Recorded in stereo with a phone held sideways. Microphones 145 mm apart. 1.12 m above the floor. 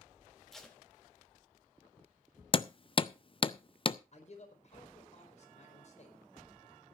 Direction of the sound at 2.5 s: 35° left (ahead or behind).